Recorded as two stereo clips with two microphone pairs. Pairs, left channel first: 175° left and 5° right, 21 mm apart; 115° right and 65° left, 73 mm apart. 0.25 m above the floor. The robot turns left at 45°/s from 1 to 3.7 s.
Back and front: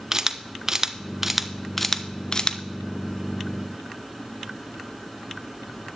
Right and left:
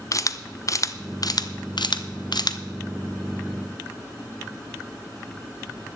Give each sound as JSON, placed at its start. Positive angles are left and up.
{"t": 0.1, "sound": "a camera shutter", "azimuth_deg": -75, "distance_m": 0.6}